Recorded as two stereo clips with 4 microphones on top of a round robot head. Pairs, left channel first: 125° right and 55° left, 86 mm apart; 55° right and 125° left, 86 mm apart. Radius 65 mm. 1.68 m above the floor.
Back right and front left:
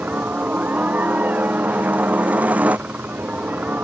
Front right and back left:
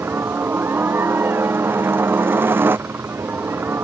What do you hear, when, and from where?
0.0 s a helicopter: 105° left